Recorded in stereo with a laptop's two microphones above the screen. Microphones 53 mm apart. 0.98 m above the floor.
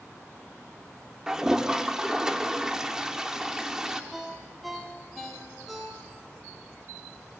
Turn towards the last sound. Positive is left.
turn(degrees=0)  # may be behind; listen again after turning